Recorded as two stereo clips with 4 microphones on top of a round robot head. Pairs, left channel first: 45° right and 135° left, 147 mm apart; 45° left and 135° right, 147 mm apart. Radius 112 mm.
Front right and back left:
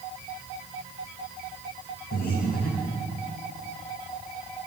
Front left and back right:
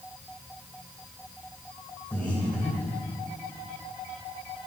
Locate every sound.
2.1 s breathing: 35° right, 2 m